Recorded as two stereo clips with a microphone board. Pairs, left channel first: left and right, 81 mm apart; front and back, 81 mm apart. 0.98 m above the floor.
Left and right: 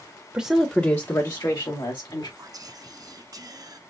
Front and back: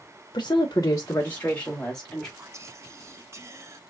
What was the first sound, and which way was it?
A woman speaking, 20° right.